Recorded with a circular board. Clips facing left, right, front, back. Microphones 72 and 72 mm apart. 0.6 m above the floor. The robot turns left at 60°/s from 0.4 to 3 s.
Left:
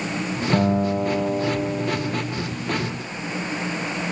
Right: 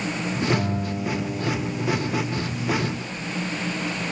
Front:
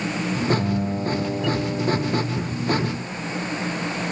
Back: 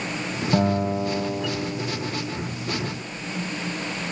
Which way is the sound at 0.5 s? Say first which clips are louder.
Left 6 dB, back 2 dB; 135° left.